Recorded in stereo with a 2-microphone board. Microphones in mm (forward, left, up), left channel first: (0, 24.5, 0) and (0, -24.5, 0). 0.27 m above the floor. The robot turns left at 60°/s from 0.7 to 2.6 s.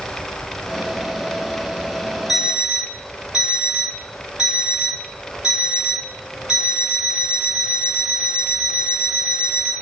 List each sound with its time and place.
2.3 s an alarm clock: centre (ahead or behind), 1.7 m; by 9.7 s 20° right (ahead or behind), 1.7 m